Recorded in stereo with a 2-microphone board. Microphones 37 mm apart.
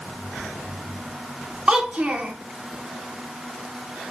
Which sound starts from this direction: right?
A child speaking, at 1.7 s.